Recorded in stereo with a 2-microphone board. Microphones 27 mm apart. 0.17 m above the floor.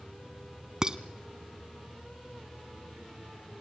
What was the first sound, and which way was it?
Dishes clattering, 30° right (ahead or behind).